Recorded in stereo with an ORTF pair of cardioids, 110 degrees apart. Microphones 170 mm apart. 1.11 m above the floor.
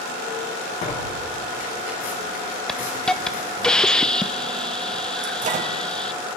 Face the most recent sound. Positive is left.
turn(degrees=-50)